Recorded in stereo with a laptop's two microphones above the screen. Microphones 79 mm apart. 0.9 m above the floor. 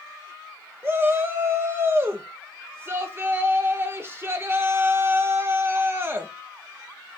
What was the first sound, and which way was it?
A shout, 30° right (ahead or behind).